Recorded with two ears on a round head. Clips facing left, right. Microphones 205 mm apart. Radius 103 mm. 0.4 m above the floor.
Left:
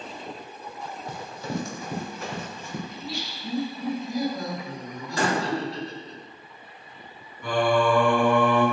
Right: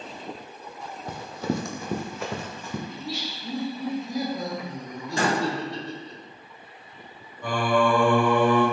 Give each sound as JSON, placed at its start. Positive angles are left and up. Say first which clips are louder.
{"t": 1.1, "sound": "running footsteps", "louder": "right 5 dB", "side_deg": -45, "distance_m": 0.5}
{"t": 2.9, "sound": "laughter", "louder": "right 1 dB", "side_deg": -20, "distance_m": 0.9}
{"t": 5.2, "sound": "a door slam", "louder": "even", "side_deg": -25, "distance_m": 1.5}
{"t": 7.4, "sound": "singing", "louder": "left 1 dB", "side_deg": -50, "distance_m": 1.2}